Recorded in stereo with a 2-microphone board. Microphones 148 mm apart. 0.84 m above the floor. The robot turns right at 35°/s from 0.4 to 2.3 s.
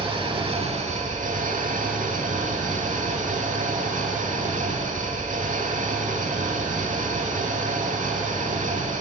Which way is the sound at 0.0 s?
140° right.